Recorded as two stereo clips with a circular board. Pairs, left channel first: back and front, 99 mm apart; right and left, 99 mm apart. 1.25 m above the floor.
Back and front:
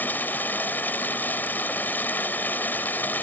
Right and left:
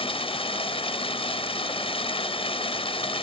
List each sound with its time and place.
0.0 s running water: 110° right